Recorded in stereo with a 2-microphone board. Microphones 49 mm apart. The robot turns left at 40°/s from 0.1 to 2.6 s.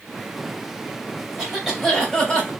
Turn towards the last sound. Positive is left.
turn(degrees=150)